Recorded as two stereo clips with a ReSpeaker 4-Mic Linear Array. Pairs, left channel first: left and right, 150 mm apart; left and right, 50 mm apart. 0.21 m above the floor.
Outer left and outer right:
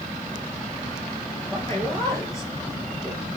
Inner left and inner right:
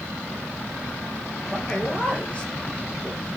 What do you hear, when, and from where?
1.5 s a man speaking: 20° left (ahead or behind), 3.5 m